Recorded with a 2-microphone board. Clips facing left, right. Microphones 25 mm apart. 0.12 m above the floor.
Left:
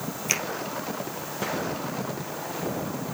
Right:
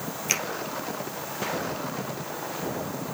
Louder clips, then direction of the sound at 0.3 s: Even; centre (ahead or behind).